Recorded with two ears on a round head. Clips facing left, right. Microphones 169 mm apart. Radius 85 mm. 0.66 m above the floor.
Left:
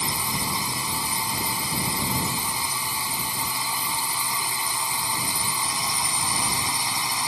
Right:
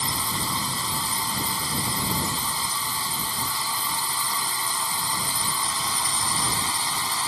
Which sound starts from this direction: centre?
A drone, at 0.0 s.